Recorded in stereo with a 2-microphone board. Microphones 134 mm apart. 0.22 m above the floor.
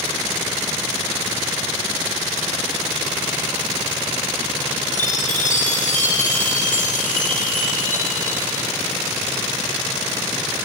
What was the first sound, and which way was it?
A chime, 75° left (ahead or behind).